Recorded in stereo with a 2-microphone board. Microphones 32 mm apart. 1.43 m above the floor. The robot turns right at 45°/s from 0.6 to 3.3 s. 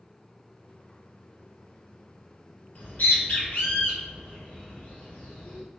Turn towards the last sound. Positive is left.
turn(degrees=60)  # may be behind; listen again after turning